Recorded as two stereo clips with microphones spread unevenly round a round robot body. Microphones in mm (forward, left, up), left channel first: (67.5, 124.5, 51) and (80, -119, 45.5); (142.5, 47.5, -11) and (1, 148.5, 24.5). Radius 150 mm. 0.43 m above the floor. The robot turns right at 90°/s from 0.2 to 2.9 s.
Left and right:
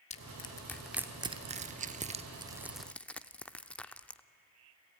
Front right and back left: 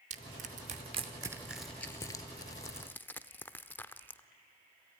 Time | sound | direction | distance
0.1 | crushing | 125° left | 0.7 m